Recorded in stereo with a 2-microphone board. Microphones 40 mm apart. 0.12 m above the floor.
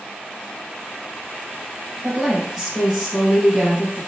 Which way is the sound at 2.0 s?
10° right (ahead or behind).